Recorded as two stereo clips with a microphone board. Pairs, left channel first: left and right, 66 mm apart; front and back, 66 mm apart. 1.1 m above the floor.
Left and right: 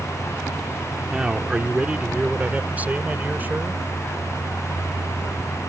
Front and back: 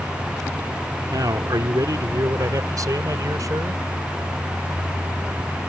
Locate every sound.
1.1 s a man speaking: 165° right; by 3.8 s 150° right